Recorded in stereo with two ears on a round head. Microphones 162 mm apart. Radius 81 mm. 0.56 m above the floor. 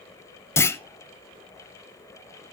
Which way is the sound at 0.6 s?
15° left (ahead or behind).